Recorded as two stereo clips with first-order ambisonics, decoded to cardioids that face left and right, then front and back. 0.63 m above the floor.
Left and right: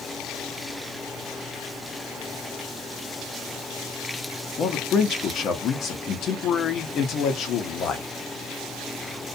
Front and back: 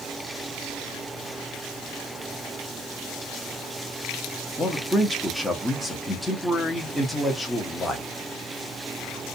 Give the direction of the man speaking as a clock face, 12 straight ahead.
9 o'clock.